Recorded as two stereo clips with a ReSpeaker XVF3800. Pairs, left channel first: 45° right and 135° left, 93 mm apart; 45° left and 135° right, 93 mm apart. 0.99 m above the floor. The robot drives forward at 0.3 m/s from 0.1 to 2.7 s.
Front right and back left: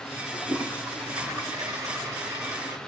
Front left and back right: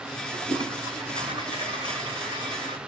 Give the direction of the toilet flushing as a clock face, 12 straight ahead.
6 o'clock.